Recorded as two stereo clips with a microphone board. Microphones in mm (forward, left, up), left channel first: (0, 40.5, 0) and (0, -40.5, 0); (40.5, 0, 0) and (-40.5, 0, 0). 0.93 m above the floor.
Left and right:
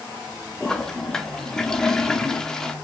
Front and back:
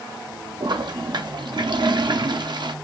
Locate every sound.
0.6 s a toilet flushing: 175° left, 0.6 m